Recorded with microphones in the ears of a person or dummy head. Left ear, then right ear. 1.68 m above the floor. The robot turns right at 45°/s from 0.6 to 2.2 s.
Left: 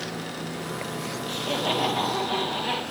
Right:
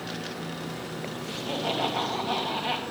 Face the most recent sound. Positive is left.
turn(degrees=-160)